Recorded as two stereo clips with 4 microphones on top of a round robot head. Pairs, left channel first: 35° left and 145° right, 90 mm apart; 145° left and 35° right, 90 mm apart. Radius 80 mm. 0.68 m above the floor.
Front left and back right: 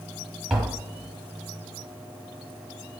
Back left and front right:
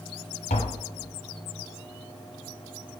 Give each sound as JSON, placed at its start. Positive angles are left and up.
{"t": 0.5, "sound": "tapping", "azimuth_deg": 130, "distance_m": 0.8}